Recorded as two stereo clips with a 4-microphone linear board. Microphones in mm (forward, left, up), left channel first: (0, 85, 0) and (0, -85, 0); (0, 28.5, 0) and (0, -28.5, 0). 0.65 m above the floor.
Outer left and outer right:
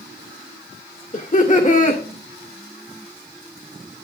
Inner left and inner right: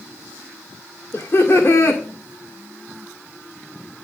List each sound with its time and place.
1.1 s laughter: 50° left (ahead or behind), 1.9 m